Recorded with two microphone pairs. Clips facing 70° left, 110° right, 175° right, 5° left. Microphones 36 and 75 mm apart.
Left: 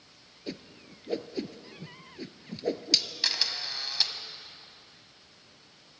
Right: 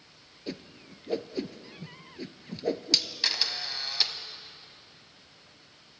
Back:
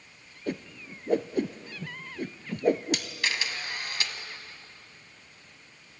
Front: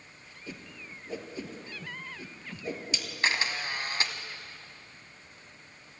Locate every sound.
0.5 s a whoosh: 160° left, 0.9 m
3.2 s a camera shutter: 30° right, 1.5 m